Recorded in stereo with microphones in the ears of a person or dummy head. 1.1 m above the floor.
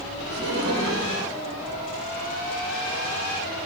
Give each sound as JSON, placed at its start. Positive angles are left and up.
{"t": 0.3, "sound": "laughter", "side_deg": -80, "distance_m": 4.0}